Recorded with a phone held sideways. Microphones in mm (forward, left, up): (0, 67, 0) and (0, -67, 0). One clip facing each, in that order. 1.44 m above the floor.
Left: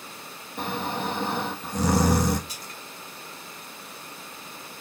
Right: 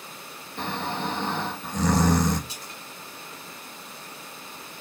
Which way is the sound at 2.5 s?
25° right (ahead or behind).